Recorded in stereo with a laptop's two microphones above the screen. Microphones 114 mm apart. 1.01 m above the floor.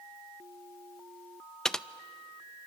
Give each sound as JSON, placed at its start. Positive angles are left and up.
{"t": 1.6, "sound": "typing on a keyboard", "side_deg": 5, "distance_m": 0.5}